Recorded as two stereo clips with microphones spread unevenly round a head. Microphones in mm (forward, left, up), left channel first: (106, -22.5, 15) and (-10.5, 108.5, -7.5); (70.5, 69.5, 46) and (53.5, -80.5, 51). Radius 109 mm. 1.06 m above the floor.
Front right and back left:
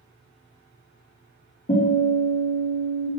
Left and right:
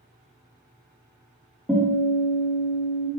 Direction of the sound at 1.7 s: 5° right.